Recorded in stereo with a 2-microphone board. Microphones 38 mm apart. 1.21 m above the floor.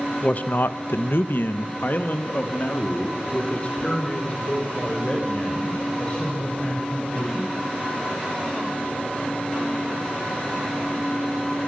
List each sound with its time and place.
0.2 s a man speaking: 40° left (ahead or behind), 0.9 m; by 7.5 s 30° left (ahead or behind), 6.5 m